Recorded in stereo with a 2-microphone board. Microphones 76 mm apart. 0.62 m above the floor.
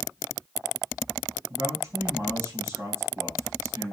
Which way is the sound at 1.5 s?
35° right (ahead or behind).